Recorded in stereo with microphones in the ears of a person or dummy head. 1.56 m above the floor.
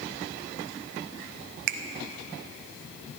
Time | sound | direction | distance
1.7 | a finger snap | 65° right (ahead or behind) | 0.6 m